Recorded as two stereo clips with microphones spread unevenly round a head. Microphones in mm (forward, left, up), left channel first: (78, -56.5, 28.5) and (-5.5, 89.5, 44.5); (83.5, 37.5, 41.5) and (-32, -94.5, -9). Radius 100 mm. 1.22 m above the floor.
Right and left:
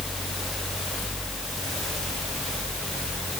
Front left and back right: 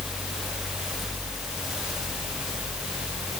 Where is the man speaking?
No man speaking in this recording.